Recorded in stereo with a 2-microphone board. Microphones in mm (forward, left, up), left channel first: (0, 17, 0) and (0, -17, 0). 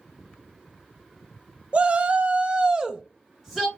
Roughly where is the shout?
Right.